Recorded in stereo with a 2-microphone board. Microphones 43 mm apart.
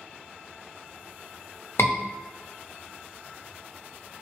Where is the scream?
75° left (ahead or behind), 0.8 m.